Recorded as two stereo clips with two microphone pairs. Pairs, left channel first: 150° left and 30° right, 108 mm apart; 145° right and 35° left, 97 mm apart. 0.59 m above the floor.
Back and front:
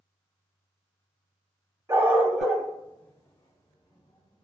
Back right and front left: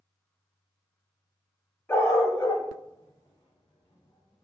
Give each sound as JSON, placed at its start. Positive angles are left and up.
{"t": 1.9, "sound": "a dog barking", "azimuth_deg": -85, "distance_m": 0.6}